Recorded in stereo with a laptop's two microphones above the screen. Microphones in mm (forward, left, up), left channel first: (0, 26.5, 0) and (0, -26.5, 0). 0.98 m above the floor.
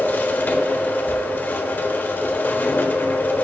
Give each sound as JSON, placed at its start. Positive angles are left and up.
{"t": 0.0, "sound": "a machine running", "side_deg": 40, "distance_m": 1.3}